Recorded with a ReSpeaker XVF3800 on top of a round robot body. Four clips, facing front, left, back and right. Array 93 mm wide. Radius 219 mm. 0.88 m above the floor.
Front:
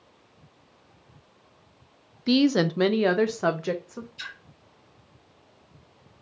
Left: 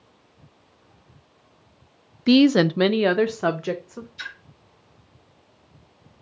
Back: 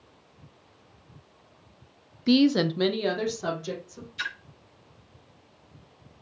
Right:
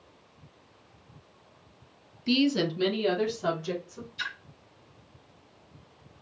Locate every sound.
2.3 s a woman speaking: 95° left, 0.5 m; by 4.1 s 45° left, 1.2 m
4.2 s a splash: 175° left, 2 m